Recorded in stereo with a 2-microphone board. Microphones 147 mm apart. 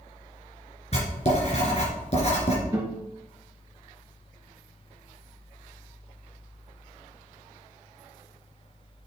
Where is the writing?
50° left (ahead or behind), 3 m.